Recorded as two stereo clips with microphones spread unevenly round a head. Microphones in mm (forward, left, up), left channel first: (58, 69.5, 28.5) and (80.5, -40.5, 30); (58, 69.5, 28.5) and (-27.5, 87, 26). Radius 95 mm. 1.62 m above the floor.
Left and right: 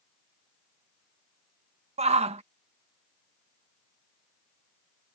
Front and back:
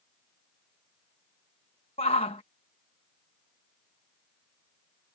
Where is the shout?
55° right.